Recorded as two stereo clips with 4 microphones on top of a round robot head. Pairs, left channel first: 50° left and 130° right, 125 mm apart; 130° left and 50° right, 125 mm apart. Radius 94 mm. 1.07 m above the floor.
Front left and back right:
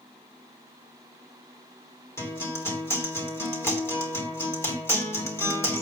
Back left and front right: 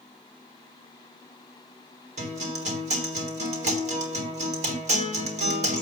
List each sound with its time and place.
2.2 s a guitar: 20° right, 3 m